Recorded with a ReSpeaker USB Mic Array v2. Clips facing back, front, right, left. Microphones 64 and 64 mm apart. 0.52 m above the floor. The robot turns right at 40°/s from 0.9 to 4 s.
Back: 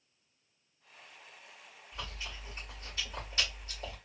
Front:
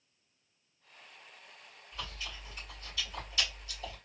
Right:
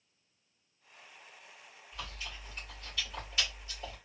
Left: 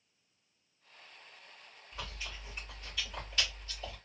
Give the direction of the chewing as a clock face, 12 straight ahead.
8 o'clock.